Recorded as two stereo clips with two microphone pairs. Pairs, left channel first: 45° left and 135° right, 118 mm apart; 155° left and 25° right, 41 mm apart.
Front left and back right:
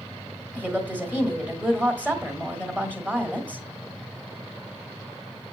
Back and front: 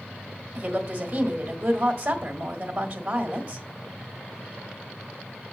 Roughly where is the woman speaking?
Ahead right.